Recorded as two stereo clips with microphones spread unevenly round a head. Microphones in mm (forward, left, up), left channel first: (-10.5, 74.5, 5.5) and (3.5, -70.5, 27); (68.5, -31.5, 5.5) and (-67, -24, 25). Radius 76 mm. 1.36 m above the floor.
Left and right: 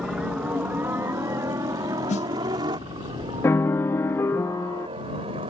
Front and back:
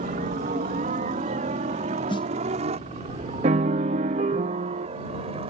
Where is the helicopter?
170° right; by 5.5 s 140° right.